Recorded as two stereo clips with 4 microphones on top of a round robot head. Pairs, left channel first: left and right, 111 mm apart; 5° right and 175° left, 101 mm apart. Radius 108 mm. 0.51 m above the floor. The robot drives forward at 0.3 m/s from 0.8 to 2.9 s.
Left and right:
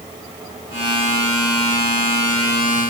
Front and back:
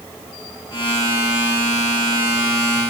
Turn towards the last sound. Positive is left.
No sound to turn to.